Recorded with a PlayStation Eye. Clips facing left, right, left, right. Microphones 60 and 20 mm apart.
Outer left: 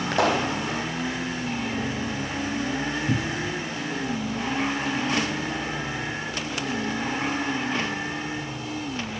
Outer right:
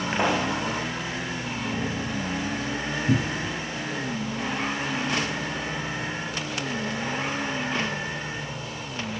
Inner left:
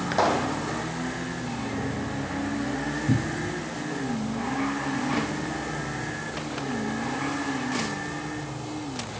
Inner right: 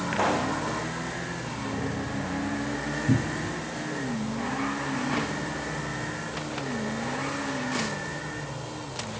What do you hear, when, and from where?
0.1 s a pop: 80° left, 6 m
3.1 s a cupboard door: 20° right (ahead or behind), 1.0 m